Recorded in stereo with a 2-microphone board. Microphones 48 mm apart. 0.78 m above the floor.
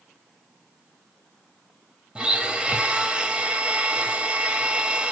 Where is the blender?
15° right (ahead or behind), 1.1 m.